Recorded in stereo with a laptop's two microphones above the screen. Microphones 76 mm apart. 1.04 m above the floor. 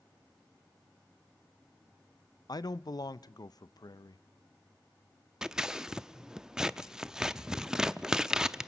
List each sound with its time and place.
2.5 s a man speaking: 55° left (ahead or behind), 0.5 m
5.4 s scissors: 10° right (ahead or behind), 0.6 m